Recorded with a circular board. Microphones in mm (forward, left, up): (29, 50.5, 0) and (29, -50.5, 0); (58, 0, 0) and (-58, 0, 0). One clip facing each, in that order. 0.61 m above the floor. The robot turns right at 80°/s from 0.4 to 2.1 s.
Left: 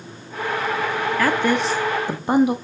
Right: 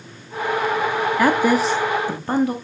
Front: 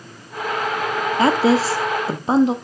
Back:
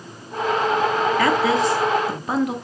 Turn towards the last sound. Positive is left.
turn(degrees=35)